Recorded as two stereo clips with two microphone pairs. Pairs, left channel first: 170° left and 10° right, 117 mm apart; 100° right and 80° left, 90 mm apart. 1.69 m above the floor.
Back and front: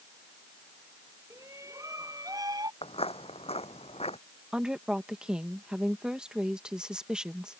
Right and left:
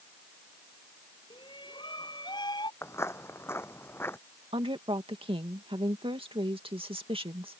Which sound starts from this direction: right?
A shout, at 1.3 s.